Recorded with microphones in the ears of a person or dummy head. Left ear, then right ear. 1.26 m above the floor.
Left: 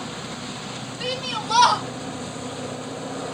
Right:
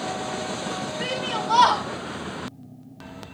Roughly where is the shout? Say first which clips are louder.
Left 1 dB; right.